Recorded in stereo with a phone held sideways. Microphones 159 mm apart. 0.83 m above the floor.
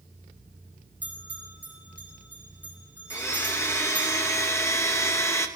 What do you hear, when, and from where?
1.0 s a bell: 10° right (ahead or behind), 3.5 m
3.1 s a blender: 20° left (ahead or behind), 0.7 m